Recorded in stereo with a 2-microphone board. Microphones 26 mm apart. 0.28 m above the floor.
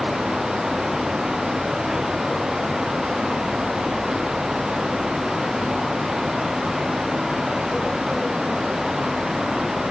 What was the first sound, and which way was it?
Only background noise.